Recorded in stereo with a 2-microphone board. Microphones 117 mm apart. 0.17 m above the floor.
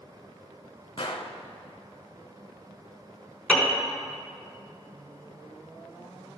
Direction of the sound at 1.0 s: 55° left (ahead or behind).